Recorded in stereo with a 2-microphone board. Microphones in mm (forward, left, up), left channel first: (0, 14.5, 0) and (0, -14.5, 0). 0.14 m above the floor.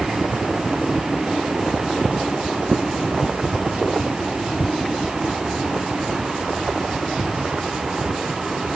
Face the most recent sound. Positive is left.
No sound to turn to.